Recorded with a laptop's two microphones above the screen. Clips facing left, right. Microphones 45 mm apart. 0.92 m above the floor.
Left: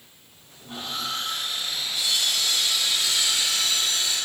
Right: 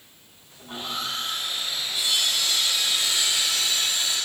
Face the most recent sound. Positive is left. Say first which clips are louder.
# right 1 dB
turn(degrees=-25)  # may be behind; listen again after turning